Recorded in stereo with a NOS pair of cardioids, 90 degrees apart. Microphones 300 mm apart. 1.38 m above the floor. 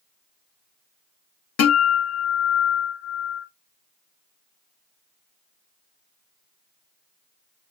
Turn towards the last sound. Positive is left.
turn(degrees=55)